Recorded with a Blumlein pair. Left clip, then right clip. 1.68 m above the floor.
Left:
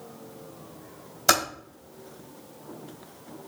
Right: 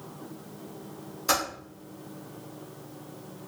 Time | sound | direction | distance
1.3 | typing on a keyboard | 65° left | 2.5 m